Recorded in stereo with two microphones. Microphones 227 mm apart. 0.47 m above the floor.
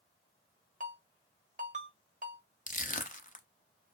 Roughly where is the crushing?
Left.